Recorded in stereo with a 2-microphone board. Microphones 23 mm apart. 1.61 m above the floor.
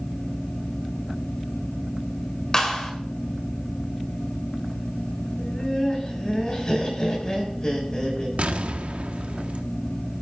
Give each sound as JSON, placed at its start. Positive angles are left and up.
{"t": 2.5, "sound": "a clap", "side_deg": 25, "distance_m": 3.5}
{"t": 5.4, "sound": "laughter", "side_deg": 40, "distance_m": 5.5}
{"t": 8.4, "sound": "an explosion", "side_deg": -70, "distance_m": 1.4}